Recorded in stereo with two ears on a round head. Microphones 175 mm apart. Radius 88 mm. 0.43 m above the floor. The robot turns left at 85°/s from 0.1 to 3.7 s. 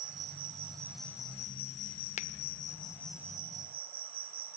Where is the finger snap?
35° left (ahead or behind), 0.7 m; by 2.3 s 40° left (ahead or behind), 0.7 m.